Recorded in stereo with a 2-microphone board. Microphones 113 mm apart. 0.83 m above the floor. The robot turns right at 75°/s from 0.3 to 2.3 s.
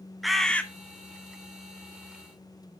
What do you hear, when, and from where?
0.2 s a bird: centre (ahead or behind), 0.8 m; by 0.6 s 15° left (ahead or behind), 0.8 m